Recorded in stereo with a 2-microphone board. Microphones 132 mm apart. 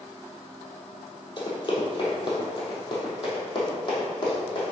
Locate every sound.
1.4 s running footsteps: 35° left (ahead or behind), 2.5 m